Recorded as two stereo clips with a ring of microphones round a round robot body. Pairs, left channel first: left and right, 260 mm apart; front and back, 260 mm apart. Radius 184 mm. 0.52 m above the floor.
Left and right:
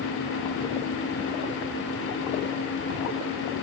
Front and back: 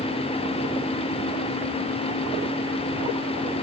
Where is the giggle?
I don't hear a giggle.